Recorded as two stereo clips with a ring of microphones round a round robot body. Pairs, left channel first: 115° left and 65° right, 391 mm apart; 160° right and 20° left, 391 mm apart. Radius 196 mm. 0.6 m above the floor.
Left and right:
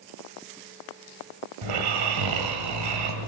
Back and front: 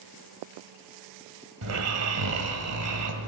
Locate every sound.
1.6 s snoring: 30° right, 1.7 m